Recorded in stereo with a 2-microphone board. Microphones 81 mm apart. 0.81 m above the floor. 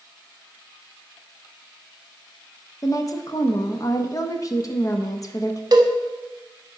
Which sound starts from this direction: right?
A cowbell, at 5.7 s.